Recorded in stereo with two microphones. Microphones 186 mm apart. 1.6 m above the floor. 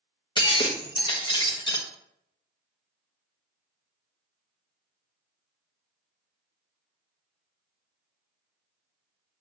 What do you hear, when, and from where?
0.4 s breaking glass: 25° left (ahead or behind), 1.1 m